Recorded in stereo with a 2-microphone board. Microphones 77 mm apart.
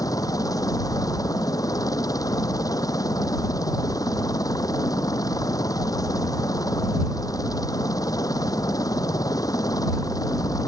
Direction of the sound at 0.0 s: 50° left (ahead or behind).